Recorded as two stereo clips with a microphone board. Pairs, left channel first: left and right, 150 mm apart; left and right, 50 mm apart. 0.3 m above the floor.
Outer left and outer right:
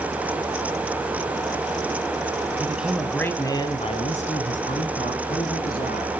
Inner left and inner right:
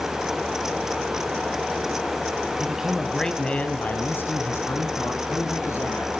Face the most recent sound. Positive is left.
turn(degrees=75)  # may be behind; listen again after turning